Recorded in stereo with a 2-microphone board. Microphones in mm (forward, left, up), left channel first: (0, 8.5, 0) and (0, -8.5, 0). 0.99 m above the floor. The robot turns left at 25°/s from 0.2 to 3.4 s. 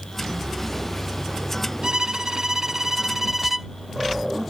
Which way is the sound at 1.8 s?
125° right.